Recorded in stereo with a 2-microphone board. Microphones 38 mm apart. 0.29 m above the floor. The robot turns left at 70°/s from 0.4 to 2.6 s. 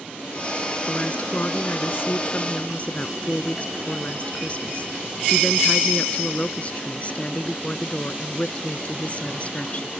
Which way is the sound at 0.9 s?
165° left.